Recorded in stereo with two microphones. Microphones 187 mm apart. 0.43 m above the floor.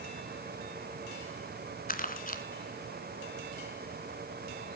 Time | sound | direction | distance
1.9 | crumpling | 50° left (ahead or behind) | 2.0 m